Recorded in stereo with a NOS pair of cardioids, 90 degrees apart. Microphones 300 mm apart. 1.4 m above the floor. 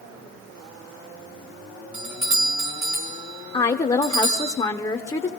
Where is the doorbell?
65° right, 2 m.